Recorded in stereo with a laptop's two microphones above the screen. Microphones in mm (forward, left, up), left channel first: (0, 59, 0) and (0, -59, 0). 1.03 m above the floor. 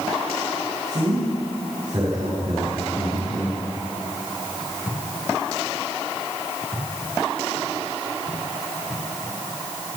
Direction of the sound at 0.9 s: 75° right (ahead or behind).